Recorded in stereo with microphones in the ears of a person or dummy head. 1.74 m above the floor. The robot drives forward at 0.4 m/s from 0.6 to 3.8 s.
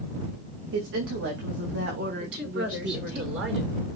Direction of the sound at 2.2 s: 70° right (ahead or behind).